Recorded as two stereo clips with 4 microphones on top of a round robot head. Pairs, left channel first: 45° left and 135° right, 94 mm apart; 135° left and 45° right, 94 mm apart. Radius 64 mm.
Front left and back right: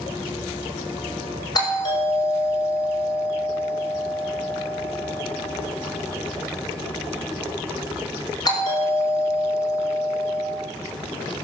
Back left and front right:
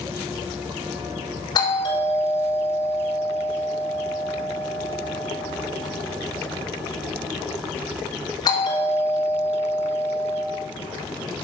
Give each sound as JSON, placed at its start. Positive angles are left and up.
{"t": 1.6, "sound": "a doorbell", "azimuth_deg": 90, "distance_m": 6.0}